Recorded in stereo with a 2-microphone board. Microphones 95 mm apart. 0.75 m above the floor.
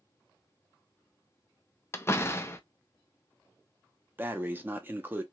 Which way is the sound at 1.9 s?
30° left (ahead or behind).